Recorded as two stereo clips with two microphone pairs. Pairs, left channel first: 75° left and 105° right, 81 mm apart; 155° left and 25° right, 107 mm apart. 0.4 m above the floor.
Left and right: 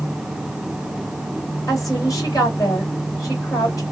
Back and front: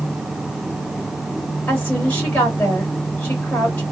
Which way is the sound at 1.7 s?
85° left.